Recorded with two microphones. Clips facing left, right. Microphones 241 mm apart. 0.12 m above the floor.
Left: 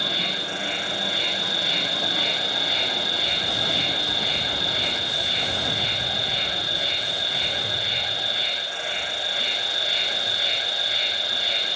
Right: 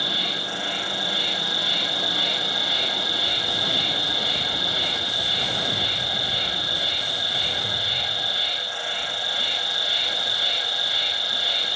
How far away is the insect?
About 0.9 m.